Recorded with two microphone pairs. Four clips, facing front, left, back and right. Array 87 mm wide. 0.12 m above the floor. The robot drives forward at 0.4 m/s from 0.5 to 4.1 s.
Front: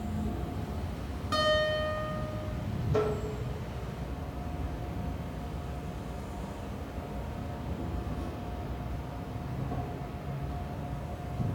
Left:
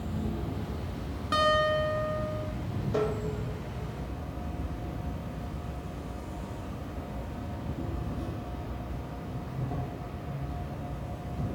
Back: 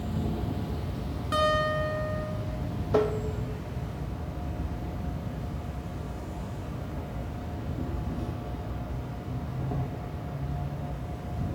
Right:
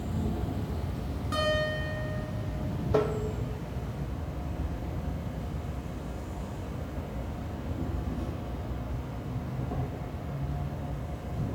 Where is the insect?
175° right, 1.6 m.